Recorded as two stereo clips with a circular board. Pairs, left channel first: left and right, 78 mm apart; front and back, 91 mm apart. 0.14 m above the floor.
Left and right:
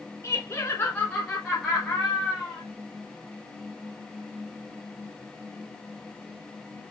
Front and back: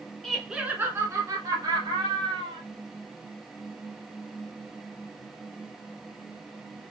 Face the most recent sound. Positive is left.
turn(degrees=180)